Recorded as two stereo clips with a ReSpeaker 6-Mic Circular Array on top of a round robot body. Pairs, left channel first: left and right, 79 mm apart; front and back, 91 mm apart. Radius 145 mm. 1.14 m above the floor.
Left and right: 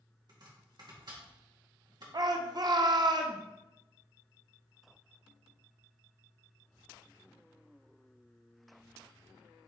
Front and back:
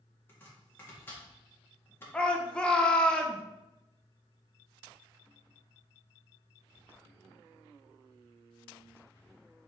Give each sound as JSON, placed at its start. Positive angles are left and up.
{"t": 0.3, "sound": "chopping", "azimuth_deg": -65, "distance_m": 1.8}
{"t": 2.1, "sound": "a shout", "azimuth_deg": -80, "distance_m": 0.7}